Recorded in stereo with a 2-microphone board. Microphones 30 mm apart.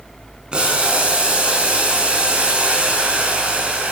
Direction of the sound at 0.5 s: 35° right (ahead or behind).